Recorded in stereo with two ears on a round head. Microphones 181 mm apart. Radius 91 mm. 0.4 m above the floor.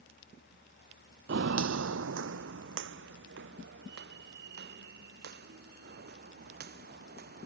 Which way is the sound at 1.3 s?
55° right (ahead or behind).